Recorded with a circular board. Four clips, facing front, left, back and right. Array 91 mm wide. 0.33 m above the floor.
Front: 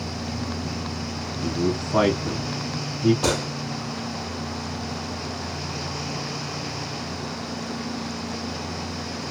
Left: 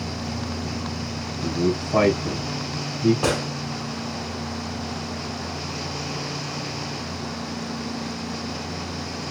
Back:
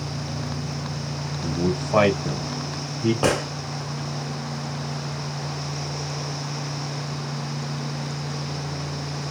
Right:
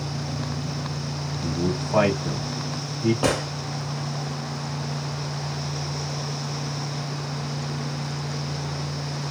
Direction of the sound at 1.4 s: 170° right.